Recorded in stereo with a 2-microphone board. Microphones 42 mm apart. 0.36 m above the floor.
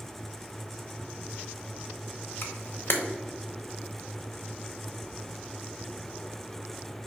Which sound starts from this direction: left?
A camera shutter, at 2.4 s.